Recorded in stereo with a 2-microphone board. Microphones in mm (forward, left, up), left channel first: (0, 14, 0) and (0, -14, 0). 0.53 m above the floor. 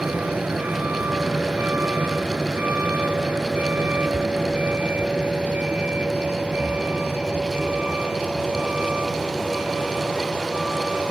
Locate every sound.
0.0 s a vehicle: 70° right (ahead or behind); by 11.1 s 35° right (ahead or behind)